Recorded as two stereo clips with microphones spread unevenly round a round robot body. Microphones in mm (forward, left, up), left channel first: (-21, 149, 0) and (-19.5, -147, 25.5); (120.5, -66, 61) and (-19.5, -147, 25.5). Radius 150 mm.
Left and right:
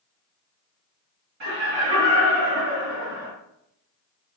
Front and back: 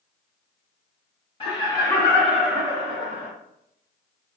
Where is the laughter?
35° right, 1.2 m; by 3.3 s 140° right, 0.8 m.